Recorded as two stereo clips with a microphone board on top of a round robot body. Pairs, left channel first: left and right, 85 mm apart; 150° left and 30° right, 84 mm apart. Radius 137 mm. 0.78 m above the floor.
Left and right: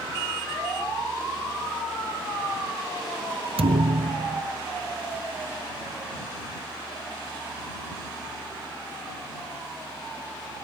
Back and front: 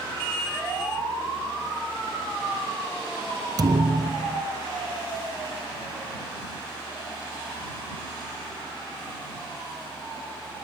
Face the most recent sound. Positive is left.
turn(degrees=-75)